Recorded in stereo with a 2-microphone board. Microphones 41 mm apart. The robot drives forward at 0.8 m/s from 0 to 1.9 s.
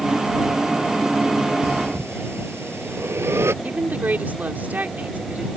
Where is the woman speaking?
45° right (ahead or behind).